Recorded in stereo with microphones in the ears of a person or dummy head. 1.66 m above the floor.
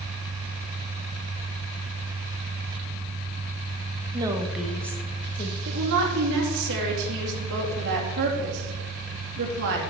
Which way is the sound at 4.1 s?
20° right (ahead or behind).